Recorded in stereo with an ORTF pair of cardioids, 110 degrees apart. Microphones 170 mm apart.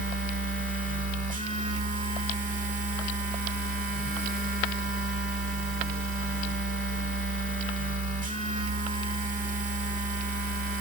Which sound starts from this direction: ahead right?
A machine running, at 0.0 s.